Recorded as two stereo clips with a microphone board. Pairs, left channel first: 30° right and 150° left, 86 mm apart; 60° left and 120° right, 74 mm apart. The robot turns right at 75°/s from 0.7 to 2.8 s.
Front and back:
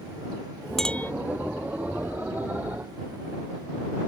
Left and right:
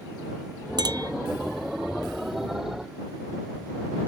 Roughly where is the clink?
Behind right.